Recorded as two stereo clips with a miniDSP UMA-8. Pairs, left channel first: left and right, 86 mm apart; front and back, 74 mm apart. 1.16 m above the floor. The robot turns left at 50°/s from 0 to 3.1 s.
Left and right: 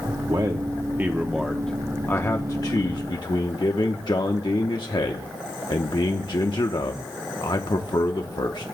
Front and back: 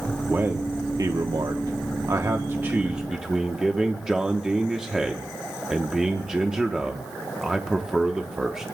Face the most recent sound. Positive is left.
turn(degrees=100)